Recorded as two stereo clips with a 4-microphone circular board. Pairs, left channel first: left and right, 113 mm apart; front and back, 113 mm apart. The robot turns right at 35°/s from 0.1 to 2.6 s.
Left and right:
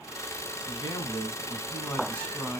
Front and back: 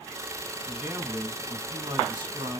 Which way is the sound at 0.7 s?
105° left.